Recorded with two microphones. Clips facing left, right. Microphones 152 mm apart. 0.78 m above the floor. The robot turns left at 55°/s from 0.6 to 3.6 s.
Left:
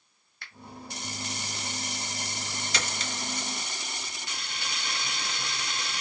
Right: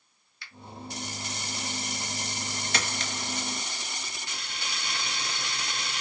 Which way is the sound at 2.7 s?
55° right (ahead or behind).